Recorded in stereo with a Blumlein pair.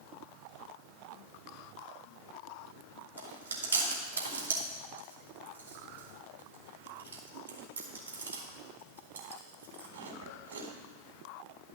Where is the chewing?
70° right, 2.5 m.